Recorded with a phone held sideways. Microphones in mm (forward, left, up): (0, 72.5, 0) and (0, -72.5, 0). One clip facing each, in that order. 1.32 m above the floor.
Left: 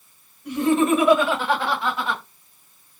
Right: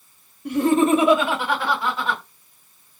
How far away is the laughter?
About 1.0 m.